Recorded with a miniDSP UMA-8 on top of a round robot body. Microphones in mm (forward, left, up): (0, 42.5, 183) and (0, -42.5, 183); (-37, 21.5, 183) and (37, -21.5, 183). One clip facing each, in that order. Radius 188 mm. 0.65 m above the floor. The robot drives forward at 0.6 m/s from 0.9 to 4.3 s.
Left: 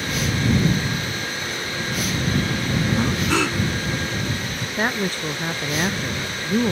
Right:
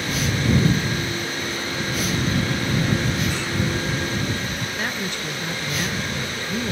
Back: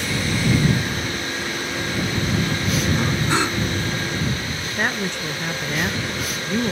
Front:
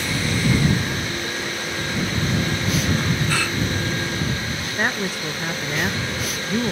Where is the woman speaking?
55° left.